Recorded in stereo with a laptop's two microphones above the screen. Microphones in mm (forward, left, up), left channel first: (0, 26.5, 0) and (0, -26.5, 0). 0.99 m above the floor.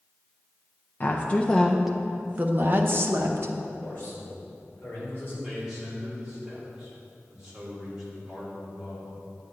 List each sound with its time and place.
1.0 s a woman speaking: 35° left (ahead or behind), 0.8 m; by 3.5 s 60° right (ahead or behind), 1.1 m
3.8 s a man speaking: 35° left (ahead or behind), 3 m
5.4 s a man speaking: 15° right (ahead or behind), 2.5 m